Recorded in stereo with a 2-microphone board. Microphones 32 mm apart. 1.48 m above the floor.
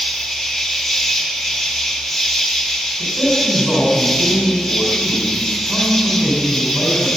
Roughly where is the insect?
Centre.